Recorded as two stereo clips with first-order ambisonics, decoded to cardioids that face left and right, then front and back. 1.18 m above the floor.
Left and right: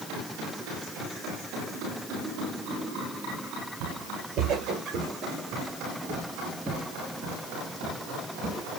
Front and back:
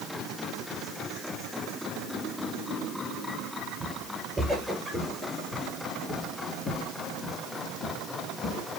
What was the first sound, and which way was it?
Footsteps, 110° right.